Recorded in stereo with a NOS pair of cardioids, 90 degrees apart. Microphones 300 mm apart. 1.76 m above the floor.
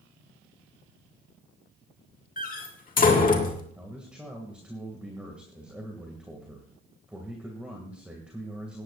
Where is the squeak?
No squeak in this recording.